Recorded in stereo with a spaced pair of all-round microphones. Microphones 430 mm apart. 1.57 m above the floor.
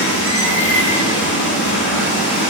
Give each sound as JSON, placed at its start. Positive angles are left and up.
{"t": 0.0, "sound": "running water", "side_deg": 35, "distance_m": 2.5}